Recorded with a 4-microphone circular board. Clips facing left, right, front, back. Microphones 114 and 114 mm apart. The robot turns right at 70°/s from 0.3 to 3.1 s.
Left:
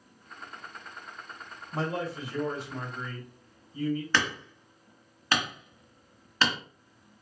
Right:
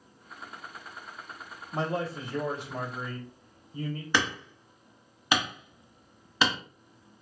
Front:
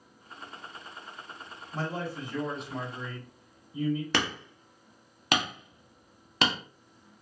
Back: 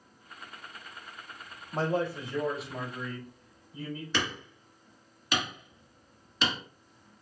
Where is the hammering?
15° right, 1.0 m.